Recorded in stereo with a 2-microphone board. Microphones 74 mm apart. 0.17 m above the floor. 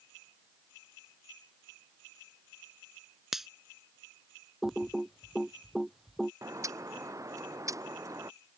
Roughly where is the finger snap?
Centre.